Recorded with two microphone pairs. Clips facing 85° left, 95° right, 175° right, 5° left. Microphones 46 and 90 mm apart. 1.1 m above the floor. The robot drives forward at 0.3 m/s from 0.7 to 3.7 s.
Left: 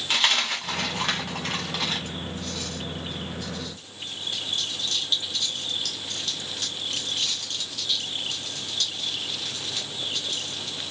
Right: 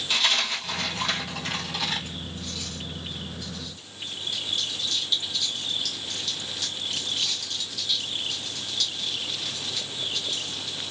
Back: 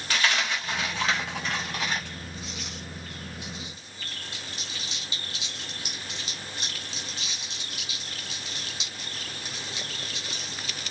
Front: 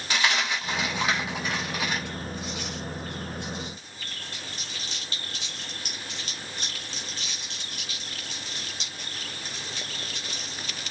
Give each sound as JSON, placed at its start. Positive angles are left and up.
{"t": 0.1, "sound": "a dropped coin", "azimuth_deg": 75, "distance_m": 1.7}